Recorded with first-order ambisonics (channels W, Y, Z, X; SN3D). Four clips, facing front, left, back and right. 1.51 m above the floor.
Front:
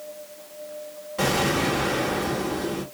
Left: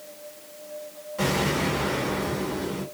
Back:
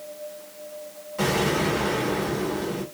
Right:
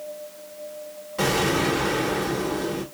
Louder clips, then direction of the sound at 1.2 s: Right 3 dB, even; 55° right.